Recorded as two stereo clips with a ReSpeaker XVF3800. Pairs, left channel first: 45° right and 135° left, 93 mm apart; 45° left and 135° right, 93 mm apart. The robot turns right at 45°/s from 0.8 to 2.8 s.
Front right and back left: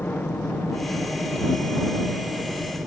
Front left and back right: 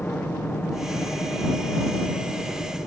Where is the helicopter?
5° right; by 2.9 s 85° left.